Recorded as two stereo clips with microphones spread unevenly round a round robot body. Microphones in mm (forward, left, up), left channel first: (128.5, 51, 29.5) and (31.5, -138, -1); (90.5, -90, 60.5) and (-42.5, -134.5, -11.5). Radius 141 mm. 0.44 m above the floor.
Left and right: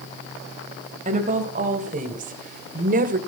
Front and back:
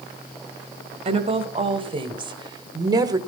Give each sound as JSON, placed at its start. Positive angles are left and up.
{"t": 1.1, "sound": "a woman speaking", "azimuth_deg": -170, "distance_m": 2.5}